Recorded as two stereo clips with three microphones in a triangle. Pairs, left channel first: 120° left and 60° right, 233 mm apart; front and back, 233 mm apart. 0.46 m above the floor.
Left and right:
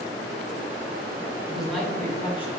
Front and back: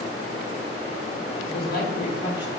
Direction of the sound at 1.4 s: 25° left.